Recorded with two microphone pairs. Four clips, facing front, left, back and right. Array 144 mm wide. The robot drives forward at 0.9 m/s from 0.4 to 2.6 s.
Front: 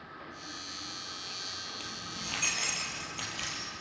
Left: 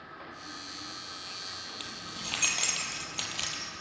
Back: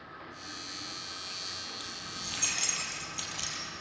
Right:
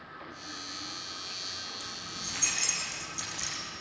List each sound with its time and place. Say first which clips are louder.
1.8 s keys jangling: even, front 1 dB; 70° left, 4 m; by 3.6 s 80° left, 4 m